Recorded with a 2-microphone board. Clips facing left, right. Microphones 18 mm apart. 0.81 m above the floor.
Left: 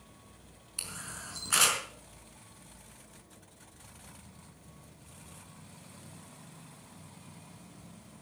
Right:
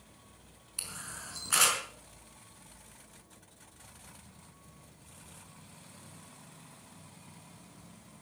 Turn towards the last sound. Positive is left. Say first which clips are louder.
# left 1 dB
turn(degrees=5)  # may be behind; listen again after turning